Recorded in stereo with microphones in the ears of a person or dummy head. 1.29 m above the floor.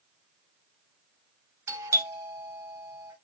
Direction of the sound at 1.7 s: 15° right (ahead or behind).